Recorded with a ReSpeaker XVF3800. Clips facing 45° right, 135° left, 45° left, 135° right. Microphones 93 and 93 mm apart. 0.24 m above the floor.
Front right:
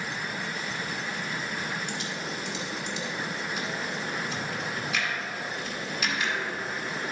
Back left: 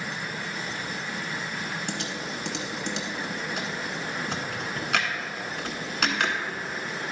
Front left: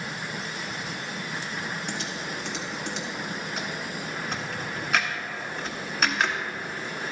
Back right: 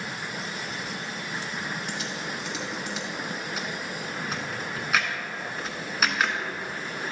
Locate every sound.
1.9 s typing on a keyboard: 135° left, 1.1 m